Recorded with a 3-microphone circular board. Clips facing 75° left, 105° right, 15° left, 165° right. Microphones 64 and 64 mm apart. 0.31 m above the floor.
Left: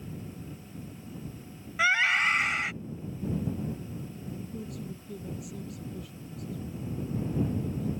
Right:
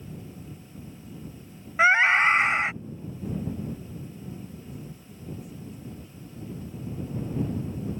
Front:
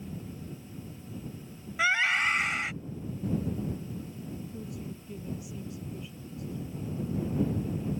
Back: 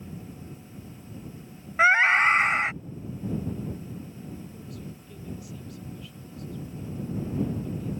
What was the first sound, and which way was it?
A scream, 145° right.